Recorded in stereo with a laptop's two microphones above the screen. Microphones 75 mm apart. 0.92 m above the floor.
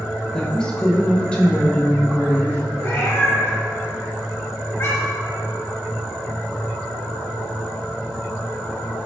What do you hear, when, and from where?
0.3 s a woman speaking: 10° left (ahead or behind), 0.7 m; by 2.6 s 15° left (ahead or behind), 2 m
2.8 s a cat meowing: 35° left (ahead or behind), 0.9 m